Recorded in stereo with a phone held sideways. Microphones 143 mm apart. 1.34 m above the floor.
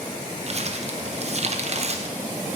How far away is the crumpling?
About 0.6 m.